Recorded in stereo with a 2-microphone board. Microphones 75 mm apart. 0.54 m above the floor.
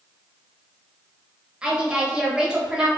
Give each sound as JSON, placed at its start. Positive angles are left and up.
{"t": 1.6, "sound": "a woman speaking", "side_deg": -10, "distance_m": 0.9}